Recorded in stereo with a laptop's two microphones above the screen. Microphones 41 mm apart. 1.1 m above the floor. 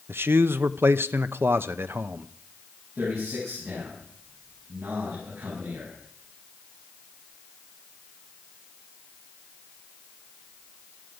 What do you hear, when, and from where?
0.1 s a man speaking: 70° right (ahead or behind), 0.7 m
3.0 s a man speaking: 80° right, 8.5 m